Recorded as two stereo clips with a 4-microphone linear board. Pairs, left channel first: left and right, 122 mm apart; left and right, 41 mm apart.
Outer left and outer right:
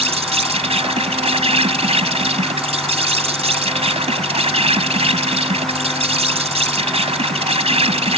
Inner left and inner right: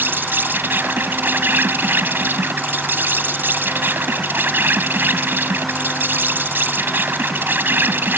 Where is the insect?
60° right (ahead or behind).